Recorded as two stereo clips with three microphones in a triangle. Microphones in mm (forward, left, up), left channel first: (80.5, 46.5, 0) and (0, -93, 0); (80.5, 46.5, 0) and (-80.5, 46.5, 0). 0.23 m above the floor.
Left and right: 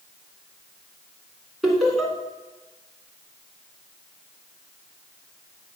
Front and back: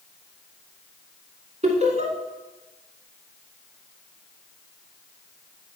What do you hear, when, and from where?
1.6 s laughter: 150° left, 2 m